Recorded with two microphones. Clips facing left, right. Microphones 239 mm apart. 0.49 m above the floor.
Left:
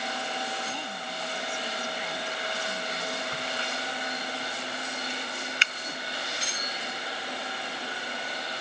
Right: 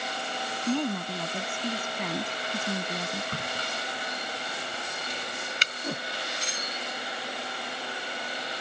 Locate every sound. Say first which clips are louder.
0.7 s a woman speaking: right 11 dB; 60° right (ahead or behind)
3.3 s a crack: even; 40° right (ahead or behind)
5.8 s a whoosh: right 9 dB; 65° right (ahead or behind)